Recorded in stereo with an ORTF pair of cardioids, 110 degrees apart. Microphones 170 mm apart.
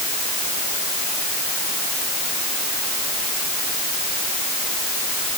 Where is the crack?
I don't hear a crack.